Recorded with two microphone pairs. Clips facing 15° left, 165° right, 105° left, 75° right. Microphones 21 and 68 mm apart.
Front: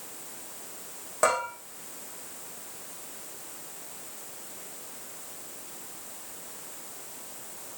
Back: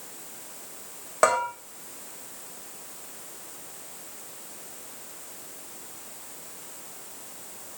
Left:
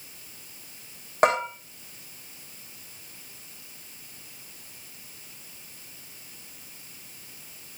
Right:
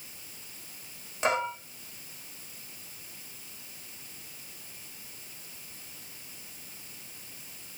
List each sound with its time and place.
1.2 s a bell: 135° left, 6.5 m